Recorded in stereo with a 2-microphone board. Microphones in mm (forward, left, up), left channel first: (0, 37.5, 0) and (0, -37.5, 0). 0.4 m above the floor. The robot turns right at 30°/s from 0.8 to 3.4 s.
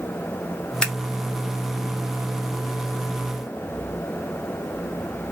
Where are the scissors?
10° left (ahead or behind), 1.4 m.